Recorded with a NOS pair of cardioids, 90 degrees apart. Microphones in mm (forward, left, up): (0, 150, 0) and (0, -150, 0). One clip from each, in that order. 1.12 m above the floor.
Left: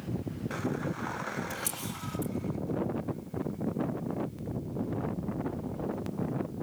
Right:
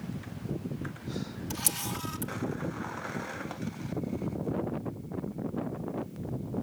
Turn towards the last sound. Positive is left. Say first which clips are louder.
# right 3 dB
turn(degrees=-60)